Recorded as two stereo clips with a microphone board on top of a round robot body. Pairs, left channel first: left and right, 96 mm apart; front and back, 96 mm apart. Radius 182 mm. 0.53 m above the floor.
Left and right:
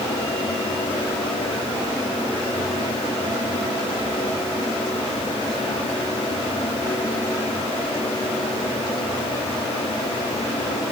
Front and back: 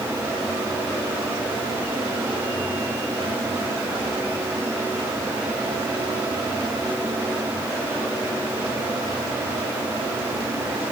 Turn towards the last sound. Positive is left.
No sound to turn to.